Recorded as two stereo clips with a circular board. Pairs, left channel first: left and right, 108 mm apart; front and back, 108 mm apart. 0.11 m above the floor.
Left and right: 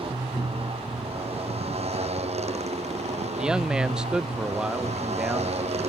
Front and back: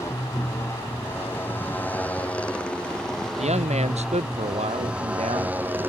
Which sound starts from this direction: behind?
A man speaking, at 3.4 s.